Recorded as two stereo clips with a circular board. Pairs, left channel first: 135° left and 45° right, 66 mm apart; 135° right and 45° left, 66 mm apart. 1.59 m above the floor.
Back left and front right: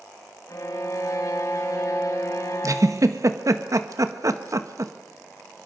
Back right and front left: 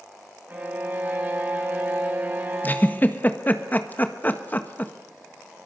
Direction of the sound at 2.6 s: 75° right.